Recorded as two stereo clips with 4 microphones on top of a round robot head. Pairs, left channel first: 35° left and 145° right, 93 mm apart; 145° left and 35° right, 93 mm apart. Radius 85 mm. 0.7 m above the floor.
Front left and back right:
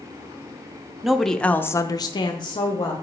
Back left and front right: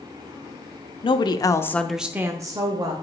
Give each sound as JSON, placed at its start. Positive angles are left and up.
{"t": 1.0, "sound": "a woman speaking", "azimuth_deg": 130, "distance_m": 0.9}